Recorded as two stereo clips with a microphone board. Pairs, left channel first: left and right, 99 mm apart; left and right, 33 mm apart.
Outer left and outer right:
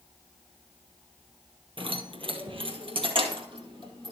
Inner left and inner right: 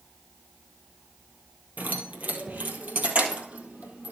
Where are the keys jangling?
60° right (ahead or behind), 1.9 m; by 4.1 s 55° right (ahead or behind), 2.5 m.